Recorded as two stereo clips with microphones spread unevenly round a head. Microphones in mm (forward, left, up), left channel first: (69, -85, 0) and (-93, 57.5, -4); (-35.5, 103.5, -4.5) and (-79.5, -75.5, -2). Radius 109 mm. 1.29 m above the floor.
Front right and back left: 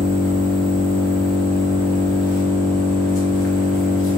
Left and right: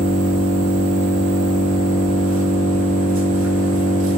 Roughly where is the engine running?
Right.